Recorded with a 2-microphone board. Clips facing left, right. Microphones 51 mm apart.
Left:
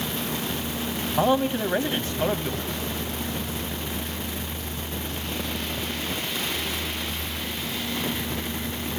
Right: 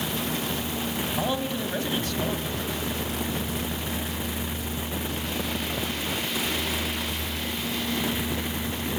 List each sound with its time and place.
1.2 s a man speaking: 30° left (ahead or behind), 1.6 m